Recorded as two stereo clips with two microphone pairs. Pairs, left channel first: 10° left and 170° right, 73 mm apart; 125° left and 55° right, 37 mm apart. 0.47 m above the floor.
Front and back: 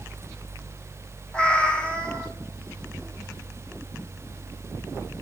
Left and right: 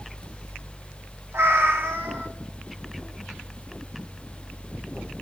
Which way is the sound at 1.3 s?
65° right.